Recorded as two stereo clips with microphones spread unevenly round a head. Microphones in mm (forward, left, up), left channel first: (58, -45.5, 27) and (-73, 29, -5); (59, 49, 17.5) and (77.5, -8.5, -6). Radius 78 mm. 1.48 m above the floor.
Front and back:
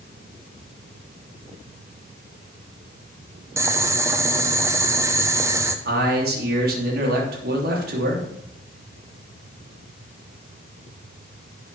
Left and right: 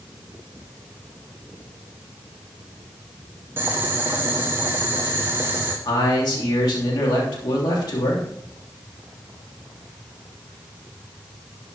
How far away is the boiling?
About 1.1 m.